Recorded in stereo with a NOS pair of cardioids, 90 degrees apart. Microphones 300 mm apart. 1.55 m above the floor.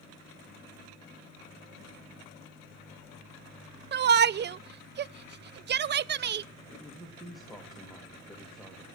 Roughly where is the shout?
Ahead right.